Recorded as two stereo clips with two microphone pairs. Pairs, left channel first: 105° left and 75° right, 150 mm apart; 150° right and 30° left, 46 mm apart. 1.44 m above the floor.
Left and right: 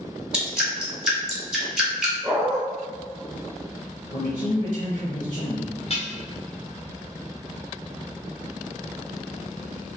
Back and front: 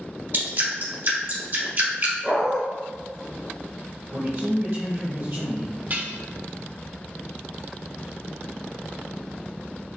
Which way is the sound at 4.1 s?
65° left.